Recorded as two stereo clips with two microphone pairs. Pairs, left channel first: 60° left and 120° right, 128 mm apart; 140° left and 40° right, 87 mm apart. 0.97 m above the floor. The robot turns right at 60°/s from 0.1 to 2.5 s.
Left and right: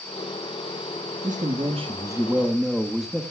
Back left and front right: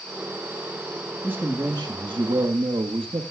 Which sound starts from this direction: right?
A man speaking, at 1.2 s.